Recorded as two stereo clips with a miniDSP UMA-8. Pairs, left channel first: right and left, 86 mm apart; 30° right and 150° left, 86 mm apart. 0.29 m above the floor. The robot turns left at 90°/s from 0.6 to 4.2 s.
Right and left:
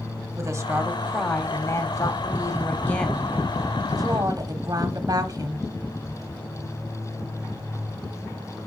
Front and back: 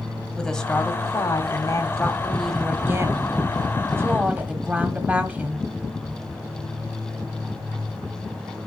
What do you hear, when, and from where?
0.4 s a woman speaking: 50° left, 1.4 m; by 5.7 s 85° left, 1.4 m